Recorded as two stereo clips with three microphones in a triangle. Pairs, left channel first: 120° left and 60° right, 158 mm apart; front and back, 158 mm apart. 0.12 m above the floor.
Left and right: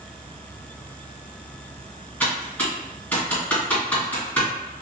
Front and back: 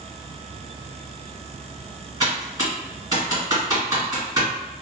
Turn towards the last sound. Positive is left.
turn(degrees=180)